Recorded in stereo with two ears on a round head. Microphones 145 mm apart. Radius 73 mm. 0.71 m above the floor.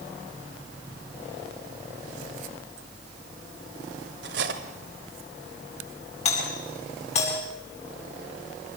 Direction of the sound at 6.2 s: 40° left (ahead or behind).